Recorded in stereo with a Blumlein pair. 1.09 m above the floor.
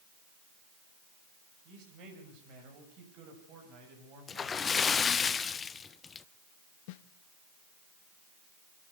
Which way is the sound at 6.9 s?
45° left.